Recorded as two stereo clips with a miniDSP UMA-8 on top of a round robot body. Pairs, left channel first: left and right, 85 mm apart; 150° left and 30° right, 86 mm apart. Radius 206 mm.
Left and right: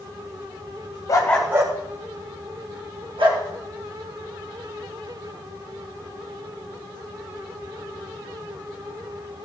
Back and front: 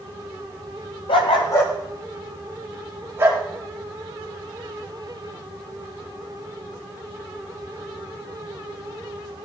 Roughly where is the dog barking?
Behind left.